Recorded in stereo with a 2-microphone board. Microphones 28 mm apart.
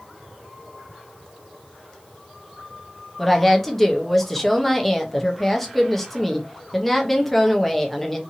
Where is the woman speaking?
10° left (ahead or behind), 0.7 m.